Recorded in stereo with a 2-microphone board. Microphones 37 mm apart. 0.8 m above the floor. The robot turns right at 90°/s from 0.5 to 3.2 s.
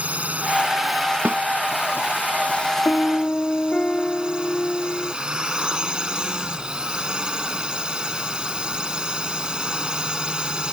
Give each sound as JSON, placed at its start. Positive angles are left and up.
{"t": 0.0, "sound": "a drone", "azimuth_deg": -40}
{"t": 1.2, "sound": "a snare drum", "side_deg": -55}
{"t": 2.9, "sound": "a piano", "azimuth_deg": 110}